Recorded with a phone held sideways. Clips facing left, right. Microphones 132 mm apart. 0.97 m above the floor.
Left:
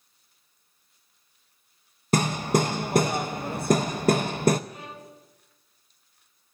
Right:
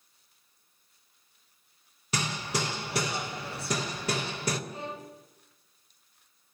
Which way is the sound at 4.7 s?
30° right (ahead or behind).